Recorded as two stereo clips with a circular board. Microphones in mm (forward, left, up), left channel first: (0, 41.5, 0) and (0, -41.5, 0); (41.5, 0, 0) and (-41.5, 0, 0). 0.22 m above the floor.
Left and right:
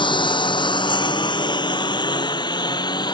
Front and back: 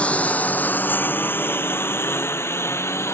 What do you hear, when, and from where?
0.0 s a lawn mower: 75° left; by 3.1 s 60° left